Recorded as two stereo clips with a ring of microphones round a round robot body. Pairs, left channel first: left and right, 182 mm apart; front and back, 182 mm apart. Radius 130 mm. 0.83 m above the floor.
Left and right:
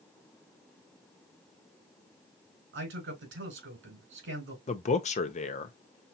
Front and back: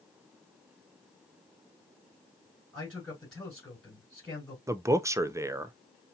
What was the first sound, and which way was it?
A man speaking, 85° right.